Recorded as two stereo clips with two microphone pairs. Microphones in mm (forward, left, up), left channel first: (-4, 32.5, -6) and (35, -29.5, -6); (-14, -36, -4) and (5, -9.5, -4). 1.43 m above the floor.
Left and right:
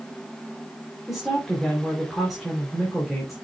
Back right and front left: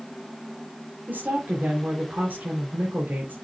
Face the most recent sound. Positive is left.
turn(degrees=30)